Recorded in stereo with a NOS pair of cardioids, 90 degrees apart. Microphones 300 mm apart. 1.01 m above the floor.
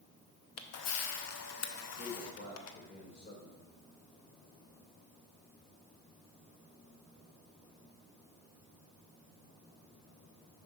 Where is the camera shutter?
60° left, 0.8 m.